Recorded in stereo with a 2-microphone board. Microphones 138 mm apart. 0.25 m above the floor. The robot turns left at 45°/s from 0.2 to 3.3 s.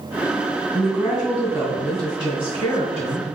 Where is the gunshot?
No gunshot in this recording.